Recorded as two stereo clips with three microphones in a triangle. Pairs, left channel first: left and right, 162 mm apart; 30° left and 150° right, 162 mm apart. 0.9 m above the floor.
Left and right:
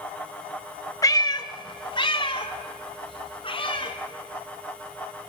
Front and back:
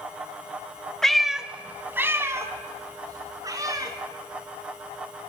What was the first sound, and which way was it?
A cat meowing, 110° left.